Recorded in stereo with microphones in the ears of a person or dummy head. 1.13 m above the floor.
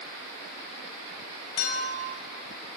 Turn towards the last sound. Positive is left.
turn(degrees=85)